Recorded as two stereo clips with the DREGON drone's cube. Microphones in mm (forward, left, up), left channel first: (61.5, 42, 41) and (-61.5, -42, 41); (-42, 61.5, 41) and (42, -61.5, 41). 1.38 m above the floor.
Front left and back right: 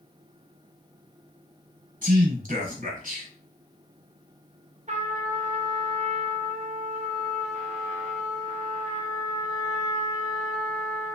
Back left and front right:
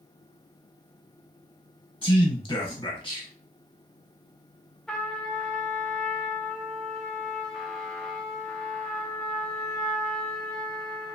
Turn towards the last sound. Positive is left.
turn(degrees=-150)